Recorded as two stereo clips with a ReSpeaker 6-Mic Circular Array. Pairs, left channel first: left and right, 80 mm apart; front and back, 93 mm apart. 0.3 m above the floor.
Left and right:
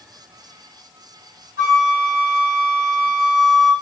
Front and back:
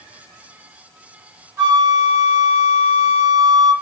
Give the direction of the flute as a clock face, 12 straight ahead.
4 o'clock.